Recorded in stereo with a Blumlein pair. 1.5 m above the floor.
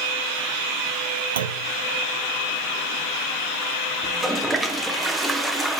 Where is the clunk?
65° right, 0.5 m.